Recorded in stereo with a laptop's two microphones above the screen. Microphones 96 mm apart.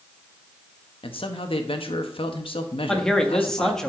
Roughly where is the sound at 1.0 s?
Left.